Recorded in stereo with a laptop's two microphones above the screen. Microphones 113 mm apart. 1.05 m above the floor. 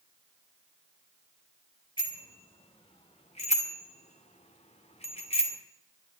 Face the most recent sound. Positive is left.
turn(degrees=55)  # may be behind; listen again after turning